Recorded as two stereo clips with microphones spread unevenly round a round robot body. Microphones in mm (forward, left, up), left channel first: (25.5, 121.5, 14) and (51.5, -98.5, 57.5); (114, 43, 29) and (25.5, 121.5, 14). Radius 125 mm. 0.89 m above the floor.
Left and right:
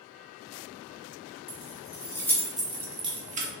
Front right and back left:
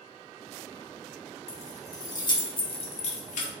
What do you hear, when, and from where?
1.5 s keys jangling: 30° left, 1.2 m; by 3.5 s 30° right, 0.8 m